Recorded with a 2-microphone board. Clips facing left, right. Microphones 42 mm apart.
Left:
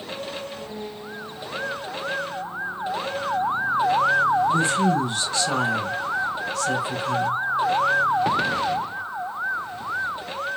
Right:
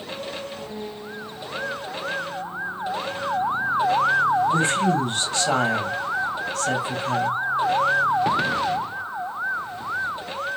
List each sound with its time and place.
4.5 s a woman speaking: 60° right (ahead or behind), 3 m